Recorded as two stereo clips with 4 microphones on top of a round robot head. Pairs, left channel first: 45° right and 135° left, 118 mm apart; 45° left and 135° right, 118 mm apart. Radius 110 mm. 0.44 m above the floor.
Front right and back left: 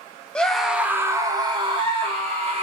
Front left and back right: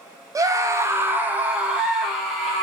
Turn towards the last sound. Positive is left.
turn(degrees=135)